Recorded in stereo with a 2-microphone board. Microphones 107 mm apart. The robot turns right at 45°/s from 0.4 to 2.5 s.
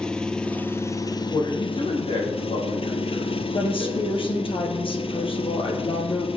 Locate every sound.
0.0 s an engine running: 10° left, 1.0 m; by 6.4 s 105° left, 1.0 m
1.3 s a man speaking: 40° left, 6 m; by 4.5 s 95° left, 6 m
3.5 s a woman speaking: 55° left (ahead or behind), 2.5 m